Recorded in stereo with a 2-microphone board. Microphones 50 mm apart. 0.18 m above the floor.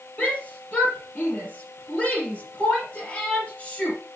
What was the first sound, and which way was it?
A shout, 30° left (ahead or behind).